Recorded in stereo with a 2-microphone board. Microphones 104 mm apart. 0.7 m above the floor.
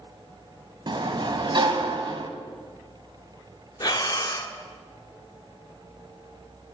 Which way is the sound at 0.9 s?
45° right (ahead or behind).